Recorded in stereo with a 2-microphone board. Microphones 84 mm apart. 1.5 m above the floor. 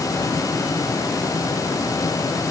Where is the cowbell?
I don't hear a cowbell.